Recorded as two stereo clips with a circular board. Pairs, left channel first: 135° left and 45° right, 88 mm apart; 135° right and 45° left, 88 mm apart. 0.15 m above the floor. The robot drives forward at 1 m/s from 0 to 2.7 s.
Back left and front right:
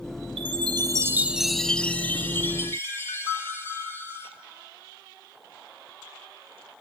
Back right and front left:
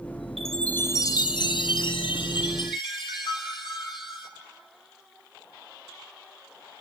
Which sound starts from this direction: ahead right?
A chime, at 0.4 s.